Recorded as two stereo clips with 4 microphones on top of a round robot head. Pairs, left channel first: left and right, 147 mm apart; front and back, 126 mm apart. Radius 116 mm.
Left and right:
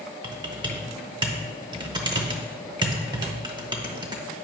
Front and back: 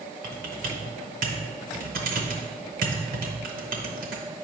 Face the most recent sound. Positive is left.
turn(degrees=-155)